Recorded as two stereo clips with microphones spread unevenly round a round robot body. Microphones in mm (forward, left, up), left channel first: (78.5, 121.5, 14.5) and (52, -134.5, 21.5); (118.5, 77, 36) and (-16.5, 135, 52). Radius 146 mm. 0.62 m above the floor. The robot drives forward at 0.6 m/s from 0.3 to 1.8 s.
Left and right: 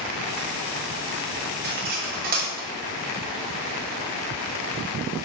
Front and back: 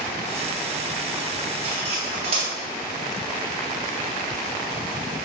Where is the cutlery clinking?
150° right, 0.6 m; by 2.7 s 155° right, 0.7 m.